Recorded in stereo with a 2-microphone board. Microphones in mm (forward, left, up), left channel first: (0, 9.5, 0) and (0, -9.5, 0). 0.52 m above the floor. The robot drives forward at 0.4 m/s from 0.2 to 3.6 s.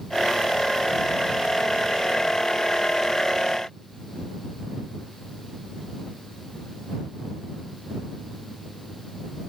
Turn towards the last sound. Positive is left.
No sound to turn to.